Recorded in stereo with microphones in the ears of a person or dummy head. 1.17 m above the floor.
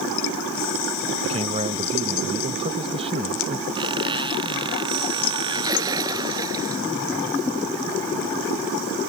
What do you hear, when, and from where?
1.2 s a man speaking: 30° right (ahead or behind)
3.8 s a squeak: 20° right (ahead or behind)
5.5 s a splash: 20° right (ahead or behind)